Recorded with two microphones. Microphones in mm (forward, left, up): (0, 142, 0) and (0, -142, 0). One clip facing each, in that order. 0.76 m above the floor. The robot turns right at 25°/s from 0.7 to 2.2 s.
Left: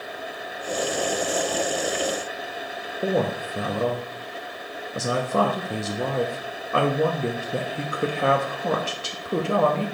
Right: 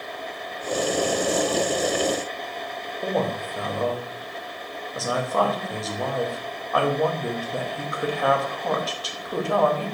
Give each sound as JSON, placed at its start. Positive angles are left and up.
{"t": 3.0, "sound": "a woman speaking", "side_deg": 30, "distance_m": 0.5}